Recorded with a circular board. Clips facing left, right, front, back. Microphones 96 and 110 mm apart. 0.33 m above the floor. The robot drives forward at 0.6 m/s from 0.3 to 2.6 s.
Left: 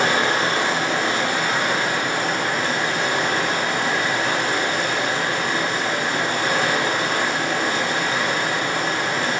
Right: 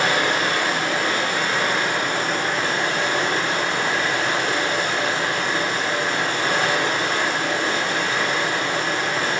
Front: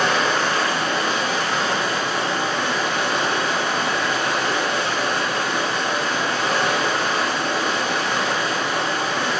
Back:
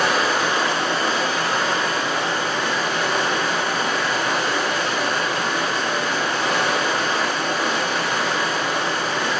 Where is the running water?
100° left, 0.8 m; by 9.4 s 165° left, 1.6 m.